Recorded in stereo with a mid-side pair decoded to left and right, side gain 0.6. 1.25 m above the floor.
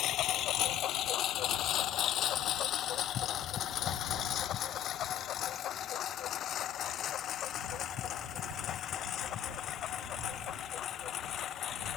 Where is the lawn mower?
60° left; by 12.0 s 50° left.